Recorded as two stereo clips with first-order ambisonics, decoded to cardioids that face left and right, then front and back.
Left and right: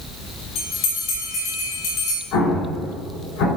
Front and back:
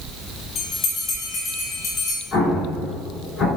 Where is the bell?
65° left, 2.5 m.